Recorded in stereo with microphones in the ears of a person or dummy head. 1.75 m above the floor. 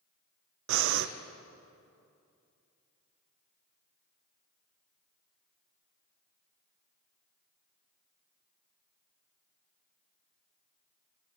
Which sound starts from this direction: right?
Breathing, at 0.7 s.